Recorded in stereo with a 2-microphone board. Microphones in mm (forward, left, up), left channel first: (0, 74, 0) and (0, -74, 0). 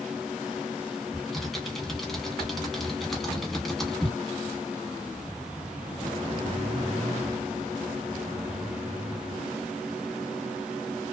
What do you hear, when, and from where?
1.1 s typing on a keyboard: centre (ahead or behind), 0.9 m